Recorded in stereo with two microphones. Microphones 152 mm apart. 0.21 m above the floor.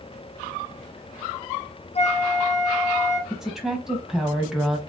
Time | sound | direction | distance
1.9 | a flute | 45° left (ahead or behind) | 1.1 m
3.3 | a woman speaking | 5° right (ahead or behind) | 1.0 m